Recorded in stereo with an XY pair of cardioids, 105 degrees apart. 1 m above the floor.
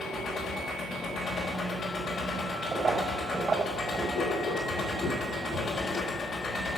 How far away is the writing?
About 5.5 m.